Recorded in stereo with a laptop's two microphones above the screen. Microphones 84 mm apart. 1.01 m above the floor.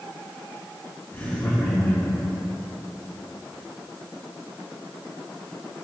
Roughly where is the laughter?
Left.